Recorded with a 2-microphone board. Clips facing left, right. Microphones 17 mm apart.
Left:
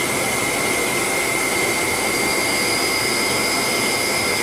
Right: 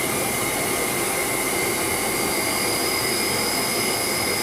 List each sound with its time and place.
0.0 s an insect: 70° left (ahead or behind), 4 m